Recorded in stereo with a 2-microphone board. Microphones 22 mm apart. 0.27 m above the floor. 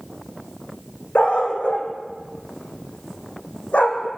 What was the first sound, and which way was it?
A dog barking, 60° left (ahead or behind).